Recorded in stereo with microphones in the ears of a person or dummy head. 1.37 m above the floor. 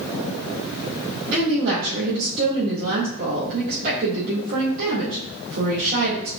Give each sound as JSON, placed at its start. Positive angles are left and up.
{"t": 1.3, "sound": "a woman speaking", "side_deg": -55, "distance_m": 2.0}